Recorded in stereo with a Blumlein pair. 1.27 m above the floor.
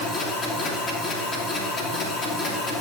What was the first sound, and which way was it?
A machine running, 20° left.